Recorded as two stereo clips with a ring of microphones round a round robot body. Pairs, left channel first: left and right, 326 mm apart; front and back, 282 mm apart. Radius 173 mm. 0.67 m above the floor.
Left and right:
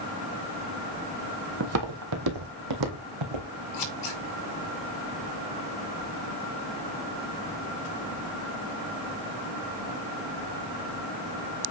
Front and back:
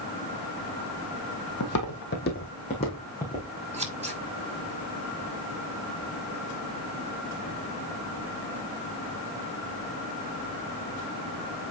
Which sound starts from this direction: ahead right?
Footsteps, at 1.6 s.